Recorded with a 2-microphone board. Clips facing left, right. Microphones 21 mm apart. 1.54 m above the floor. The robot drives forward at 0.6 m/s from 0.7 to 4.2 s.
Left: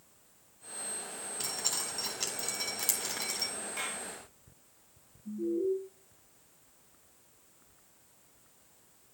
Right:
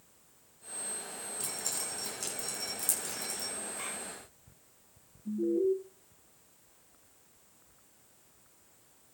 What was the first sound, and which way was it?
Dripping, 40° left (ahead or behind).